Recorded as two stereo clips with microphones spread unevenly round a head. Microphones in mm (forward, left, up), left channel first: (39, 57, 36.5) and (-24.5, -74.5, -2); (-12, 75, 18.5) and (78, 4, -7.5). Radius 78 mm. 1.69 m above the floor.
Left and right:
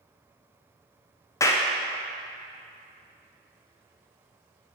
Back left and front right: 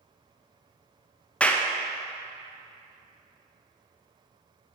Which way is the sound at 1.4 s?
90° left.